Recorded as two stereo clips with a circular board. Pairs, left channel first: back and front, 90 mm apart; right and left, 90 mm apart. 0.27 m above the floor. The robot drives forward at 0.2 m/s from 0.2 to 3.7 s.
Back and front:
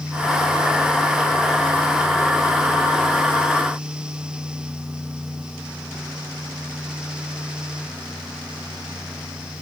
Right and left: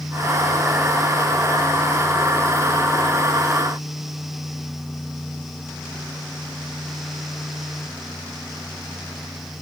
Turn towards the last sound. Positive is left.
No sound to turn to.